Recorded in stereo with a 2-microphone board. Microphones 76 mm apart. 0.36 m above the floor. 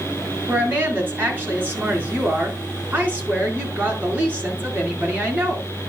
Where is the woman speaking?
25° right (ahead or behind), 4 m.